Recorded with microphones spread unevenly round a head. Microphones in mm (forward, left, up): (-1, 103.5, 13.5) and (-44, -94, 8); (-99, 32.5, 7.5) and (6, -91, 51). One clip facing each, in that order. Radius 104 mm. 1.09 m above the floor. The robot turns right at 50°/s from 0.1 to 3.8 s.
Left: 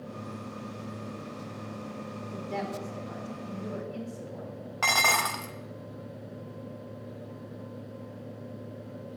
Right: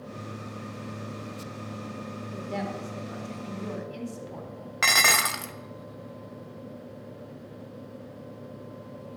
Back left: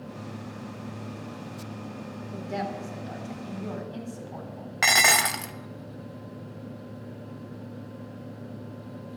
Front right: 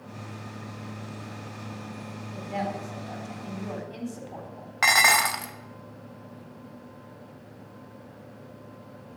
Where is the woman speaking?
165° left, 4 m; by 4.7 s 125° right, 4 m.